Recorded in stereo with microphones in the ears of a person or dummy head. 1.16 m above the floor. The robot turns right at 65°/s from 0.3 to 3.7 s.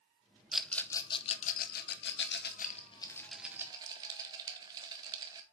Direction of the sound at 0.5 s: 5° right (ahead or behind).